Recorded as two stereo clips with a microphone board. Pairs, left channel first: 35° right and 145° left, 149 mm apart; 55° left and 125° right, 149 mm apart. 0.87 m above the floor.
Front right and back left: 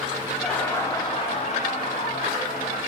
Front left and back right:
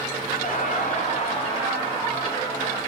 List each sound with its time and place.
0.4 s laughter: 55° left, 0.7 m; by 2.8 s 15° right, 1.5 m